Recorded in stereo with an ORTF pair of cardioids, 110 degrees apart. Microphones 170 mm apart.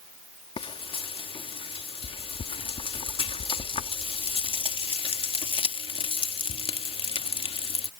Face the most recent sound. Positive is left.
turn(degrees=30)